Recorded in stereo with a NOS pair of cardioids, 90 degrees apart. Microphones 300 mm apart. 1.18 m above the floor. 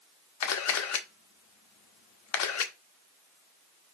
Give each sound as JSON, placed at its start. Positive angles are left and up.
{"t": 0.4, "sound": "a camera shutter", "azimuth_deg": 60, "distance_m": 1.2}